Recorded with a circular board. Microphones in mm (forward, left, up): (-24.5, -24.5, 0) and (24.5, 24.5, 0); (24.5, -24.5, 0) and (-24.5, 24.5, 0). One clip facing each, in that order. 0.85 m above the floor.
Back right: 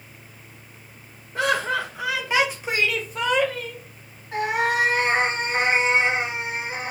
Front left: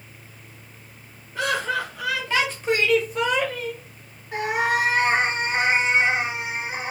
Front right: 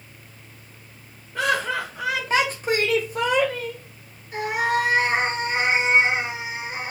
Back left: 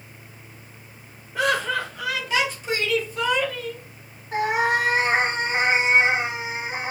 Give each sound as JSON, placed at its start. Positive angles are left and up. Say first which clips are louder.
{"t": 1.4, "sound": "laughter", "louder": "back right 2 dB, back left 1 dB", "azimuth_deg": -140, "distance_m": 0.8}
{"t": 4.3, "sound": "a cat meowing", "louder": "even, back left 2 dB", "azimuth_deg": 130, "distance_m": 1.4}